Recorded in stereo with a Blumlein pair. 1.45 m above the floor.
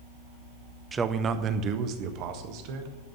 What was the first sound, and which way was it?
A man speaking, 15° right.